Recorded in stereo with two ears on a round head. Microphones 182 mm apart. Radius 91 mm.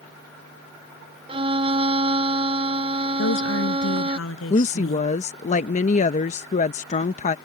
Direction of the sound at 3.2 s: 80° left.